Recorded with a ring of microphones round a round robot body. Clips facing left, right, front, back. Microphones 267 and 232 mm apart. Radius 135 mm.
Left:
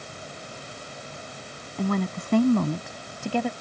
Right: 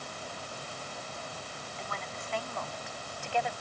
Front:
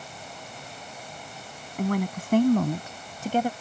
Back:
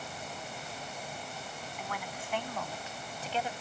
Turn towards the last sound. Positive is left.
turn(degrees=40)